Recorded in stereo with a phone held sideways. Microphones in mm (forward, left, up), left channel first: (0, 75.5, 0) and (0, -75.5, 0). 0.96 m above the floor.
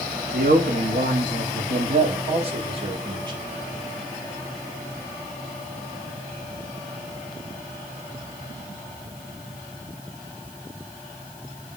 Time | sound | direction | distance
0.3 | a man speaking | 75° right (ahead or behind) | 1.3 m